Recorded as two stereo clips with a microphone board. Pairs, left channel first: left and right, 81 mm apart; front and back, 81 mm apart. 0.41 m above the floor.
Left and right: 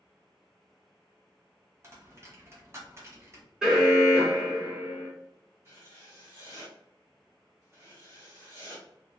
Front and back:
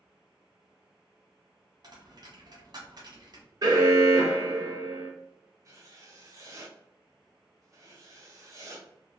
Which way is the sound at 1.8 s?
145° right.